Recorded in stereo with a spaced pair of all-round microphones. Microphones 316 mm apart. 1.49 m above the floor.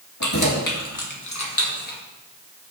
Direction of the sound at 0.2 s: 60° left (ahead or behind).